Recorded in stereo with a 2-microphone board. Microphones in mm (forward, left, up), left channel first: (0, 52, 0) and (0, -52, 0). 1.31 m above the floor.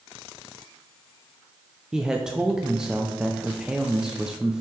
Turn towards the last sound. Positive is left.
turn(degrees=-5)  # may be behind; listen again after turning